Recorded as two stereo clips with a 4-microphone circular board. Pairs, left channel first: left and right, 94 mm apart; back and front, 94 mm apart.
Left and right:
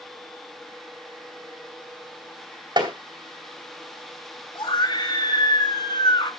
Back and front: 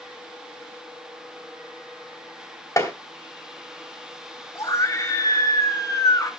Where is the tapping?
125° right, 3 m.